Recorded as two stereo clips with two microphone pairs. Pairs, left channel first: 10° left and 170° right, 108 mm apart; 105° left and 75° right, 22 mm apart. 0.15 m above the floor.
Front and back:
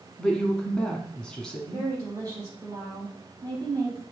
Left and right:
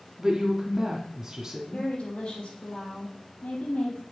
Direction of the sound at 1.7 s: 135° left.